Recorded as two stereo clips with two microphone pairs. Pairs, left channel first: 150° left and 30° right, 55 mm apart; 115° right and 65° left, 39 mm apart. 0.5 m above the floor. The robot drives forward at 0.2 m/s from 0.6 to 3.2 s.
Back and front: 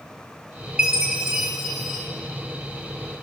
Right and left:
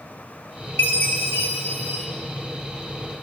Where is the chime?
105° right, 1.1 m; by 2.1 s 115° right, 1.2 m.